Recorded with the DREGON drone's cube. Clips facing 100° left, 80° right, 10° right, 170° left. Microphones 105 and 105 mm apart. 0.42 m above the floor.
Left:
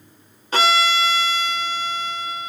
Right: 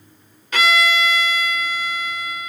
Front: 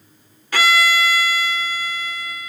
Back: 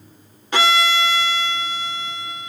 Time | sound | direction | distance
0.5 | a violin | 120° left | 1.1 m